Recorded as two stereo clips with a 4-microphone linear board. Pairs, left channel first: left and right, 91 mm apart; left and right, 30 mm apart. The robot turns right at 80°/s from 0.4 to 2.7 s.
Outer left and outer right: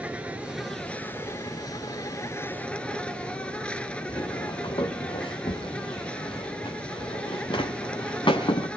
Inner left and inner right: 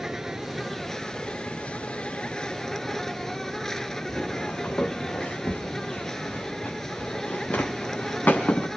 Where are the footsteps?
50° left (ahead or behind), 3 m; by 8.7 s 65° left (ahead or behind), 5.5 m.